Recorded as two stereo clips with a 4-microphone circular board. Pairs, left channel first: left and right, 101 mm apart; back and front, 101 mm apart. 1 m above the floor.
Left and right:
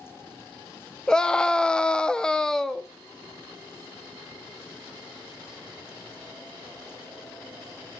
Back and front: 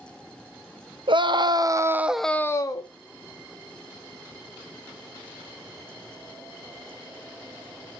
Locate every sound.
1.1 s a scream: 10° left, 0.9 m; by 2.9 s 175° left, 0.7 m